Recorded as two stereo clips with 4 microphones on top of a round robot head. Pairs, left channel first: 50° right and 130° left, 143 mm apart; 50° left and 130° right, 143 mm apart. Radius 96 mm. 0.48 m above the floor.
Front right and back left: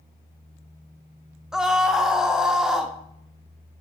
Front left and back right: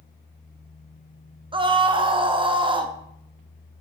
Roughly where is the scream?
Behind right.